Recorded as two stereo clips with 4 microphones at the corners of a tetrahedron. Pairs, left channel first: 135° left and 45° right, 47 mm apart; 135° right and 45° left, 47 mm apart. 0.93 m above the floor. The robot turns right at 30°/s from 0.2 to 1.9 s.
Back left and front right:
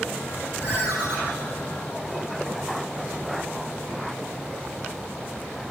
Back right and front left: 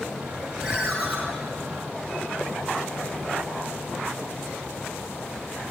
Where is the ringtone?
35° right, 1.1 m; by 1.2 s 20° right, 1.1 m.